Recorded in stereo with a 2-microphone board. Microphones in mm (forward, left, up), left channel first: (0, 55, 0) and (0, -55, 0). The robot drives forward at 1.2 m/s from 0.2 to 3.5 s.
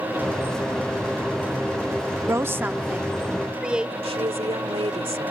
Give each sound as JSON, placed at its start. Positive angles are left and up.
{"t": 2.3, "sound": "a woman speaking", "side_deg": -25}
{"t": 4.0, "sound": "a woman speaking", "side_deg": -60}